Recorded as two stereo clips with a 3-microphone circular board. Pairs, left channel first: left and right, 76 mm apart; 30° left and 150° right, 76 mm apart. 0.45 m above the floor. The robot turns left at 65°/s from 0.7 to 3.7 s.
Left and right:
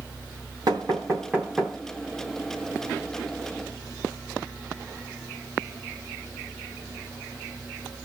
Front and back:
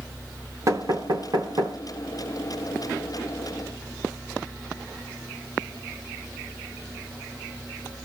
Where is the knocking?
110° right, 2.5 m; by 1.8 s 175° right, 2.5 m.